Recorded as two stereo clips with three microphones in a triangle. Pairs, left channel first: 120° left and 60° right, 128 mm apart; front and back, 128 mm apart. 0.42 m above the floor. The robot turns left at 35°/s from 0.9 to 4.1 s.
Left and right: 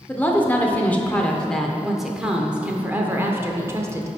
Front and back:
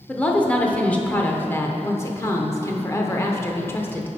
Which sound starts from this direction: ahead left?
A woman speaking, at 0.1 s.